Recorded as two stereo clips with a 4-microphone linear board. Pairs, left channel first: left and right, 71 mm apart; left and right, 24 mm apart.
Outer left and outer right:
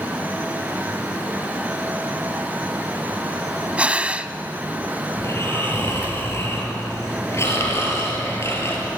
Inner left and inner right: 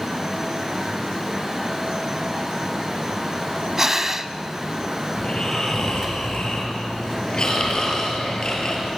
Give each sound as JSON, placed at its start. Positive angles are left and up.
{"t": 3.8, "sound": "breathing", "side_deg": -20, "distance_m": 0.8}
{"t": 5.2, "sound": "snoring", "side_deg": 40, "distance_m": 6.5}